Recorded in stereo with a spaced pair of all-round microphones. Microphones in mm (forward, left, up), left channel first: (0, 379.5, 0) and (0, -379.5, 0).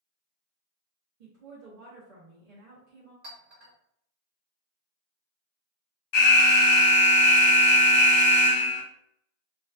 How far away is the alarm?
About 0.7 m.